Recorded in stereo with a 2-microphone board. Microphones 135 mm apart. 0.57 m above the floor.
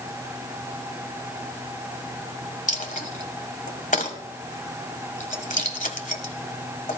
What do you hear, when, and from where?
2.7 s a dropped coin: 75° left (ahead or behind), 1.5 m